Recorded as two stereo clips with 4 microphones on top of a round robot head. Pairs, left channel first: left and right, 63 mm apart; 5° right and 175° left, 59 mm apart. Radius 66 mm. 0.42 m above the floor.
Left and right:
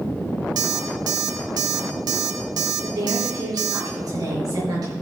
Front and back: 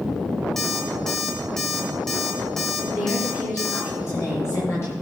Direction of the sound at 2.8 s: 55° right.